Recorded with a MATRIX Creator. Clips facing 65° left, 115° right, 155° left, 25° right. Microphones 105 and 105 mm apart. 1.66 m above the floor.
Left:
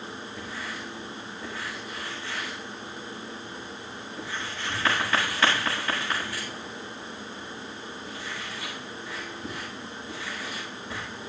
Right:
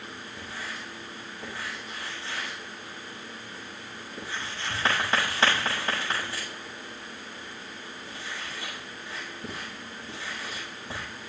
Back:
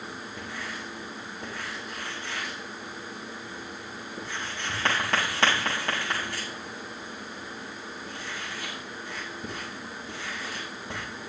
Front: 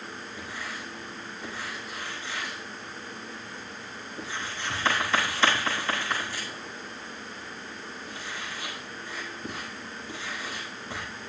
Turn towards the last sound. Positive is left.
turn(degrees=-175)